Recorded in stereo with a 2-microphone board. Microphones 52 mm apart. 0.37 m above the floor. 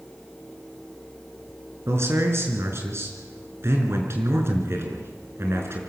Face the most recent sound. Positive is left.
turn(degrees=-55)  # may be behind; listen again after turning